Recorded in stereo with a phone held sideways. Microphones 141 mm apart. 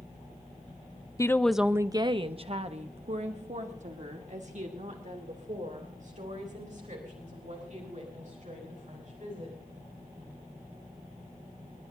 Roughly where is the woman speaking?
Left.